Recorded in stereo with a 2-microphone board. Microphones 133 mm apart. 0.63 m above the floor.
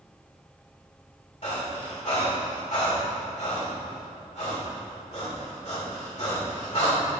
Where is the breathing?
55° left (ahead or behind), 2.5 m.